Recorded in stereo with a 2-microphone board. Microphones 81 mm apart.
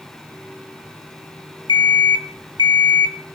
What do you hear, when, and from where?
1.7 s an alarm clock: 60° left (ahead or behind), 0.6 m